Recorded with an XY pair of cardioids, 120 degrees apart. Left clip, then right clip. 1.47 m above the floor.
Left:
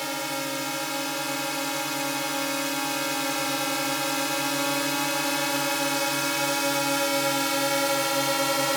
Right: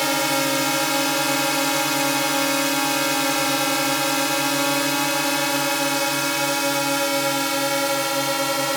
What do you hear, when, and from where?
0.0 s a drone: 50° right; by 8.8 s 15° right